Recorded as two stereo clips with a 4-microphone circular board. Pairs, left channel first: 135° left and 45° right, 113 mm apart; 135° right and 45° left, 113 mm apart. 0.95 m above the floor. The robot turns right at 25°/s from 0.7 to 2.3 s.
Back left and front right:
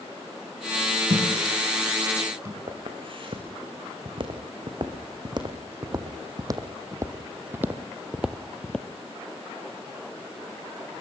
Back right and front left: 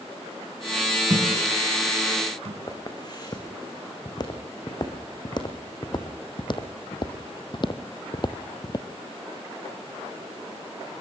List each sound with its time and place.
1.1 s a thud: 15° right, 3 m; by 2.6 s 15° left, 3 m
2.7 s footsteps: 85° right, 3.5 m; by 8.9 s 150° right, 1.1 m